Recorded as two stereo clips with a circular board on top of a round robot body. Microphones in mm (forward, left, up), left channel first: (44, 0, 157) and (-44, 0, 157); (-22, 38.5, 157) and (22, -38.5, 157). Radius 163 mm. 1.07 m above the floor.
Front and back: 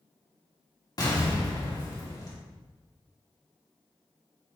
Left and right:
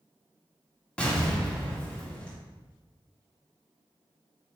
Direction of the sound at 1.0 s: 45° left.